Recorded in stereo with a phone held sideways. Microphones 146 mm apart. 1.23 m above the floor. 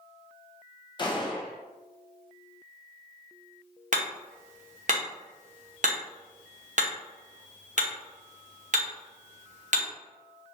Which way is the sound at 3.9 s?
60° right (ahead or behind).